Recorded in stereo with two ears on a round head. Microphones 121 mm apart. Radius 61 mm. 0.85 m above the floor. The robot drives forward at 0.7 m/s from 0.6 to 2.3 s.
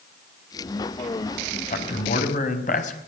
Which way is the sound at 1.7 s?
55° left (ahead or behind).